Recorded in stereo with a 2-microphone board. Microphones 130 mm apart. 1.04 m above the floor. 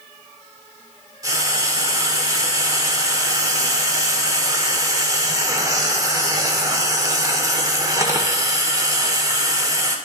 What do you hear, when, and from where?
1.2 s frying: 30° right (ahead or behind), 1.4 m